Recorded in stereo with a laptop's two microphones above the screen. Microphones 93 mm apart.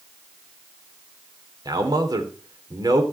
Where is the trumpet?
I don't hear a trumpet.